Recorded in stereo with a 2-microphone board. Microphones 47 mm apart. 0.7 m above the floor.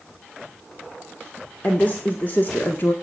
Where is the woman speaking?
35° left (ahead or behind), 1.9 m; by 2.9 s 45° left (ahead or behind), 1.4 m.